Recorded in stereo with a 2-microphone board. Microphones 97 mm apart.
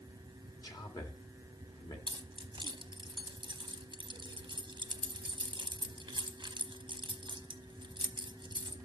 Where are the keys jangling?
55° right (ahead or behind), 0.8 m.